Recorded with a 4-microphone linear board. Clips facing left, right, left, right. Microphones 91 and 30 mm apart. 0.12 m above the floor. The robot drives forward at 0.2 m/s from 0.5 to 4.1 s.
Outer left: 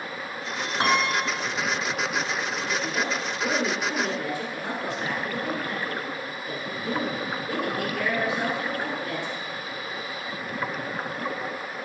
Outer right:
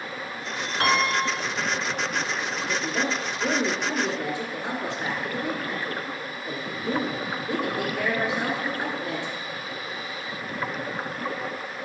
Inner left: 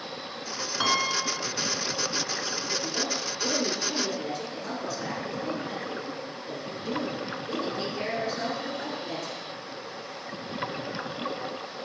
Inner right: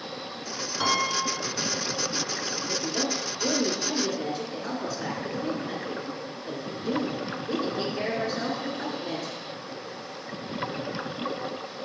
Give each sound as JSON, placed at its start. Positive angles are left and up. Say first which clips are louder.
{"t": 0.8, "sound": "a piano", "louder": "outer right 1 dB, even", "side_deg": 20, "distance_m": 1.0}
{"t": 2.7, "sound": "a woman speaking", "louder": "outer right 2 dB, inner right 2 dB", "side_deg": -20, "distance_m": 1.5}